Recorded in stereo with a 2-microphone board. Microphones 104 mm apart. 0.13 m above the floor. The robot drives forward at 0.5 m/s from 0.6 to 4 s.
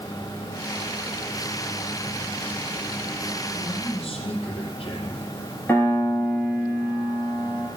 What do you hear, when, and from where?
3.5 s a man speaking: 65° left (ahead or behind), 5 m
5.7 s a piano: 15° left (ahead or behind), 4 m